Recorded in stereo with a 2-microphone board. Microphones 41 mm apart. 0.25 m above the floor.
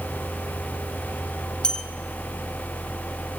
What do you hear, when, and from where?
1.6 s a bell: 20° left (ahead or behind), 1.2 m